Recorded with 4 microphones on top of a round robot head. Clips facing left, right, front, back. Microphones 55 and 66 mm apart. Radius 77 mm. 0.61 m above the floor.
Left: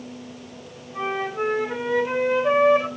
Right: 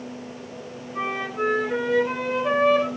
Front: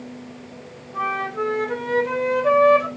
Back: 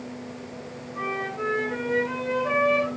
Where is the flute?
5° left, 4.5 m.